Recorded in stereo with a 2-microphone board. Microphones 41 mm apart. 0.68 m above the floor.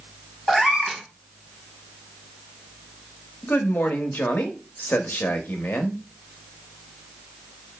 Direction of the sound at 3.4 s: 50° left (ahead or behind).